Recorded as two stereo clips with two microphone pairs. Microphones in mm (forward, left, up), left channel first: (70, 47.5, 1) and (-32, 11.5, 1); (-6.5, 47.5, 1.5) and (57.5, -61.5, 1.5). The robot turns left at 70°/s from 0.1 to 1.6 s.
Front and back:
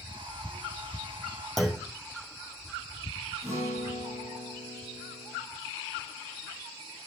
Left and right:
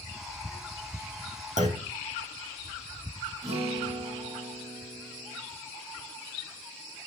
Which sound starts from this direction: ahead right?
A clunk, at 1.6 s.